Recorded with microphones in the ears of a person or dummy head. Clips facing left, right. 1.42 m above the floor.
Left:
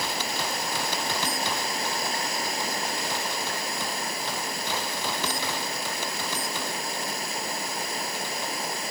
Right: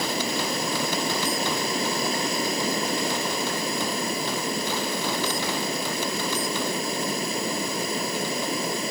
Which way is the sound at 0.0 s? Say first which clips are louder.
Right 4 dB; 75° right (ahead or behind).